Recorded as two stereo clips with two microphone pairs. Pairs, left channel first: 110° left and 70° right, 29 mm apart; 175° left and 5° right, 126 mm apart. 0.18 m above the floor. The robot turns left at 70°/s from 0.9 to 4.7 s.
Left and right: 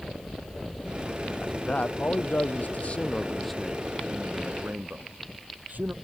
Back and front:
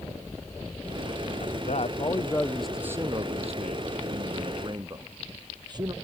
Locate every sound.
1.4 s a man speaking: 170° left; by 5.9 s 60° right